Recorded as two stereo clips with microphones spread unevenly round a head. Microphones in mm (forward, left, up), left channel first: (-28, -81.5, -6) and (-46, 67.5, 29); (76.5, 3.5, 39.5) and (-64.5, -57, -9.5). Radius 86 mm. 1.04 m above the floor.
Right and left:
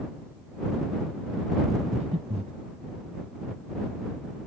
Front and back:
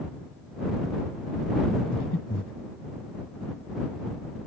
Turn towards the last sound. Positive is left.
turn(degrees=40)